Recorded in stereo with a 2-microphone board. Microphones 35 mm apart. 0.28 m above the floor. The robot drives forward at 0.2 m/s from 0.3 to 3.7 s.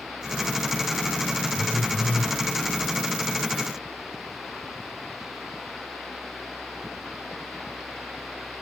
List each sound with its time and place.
1.5 s a phone buzzing: 55° left (ahead or behind), 3 m; by 2.4 s 60° left (ahead or behind), 3 m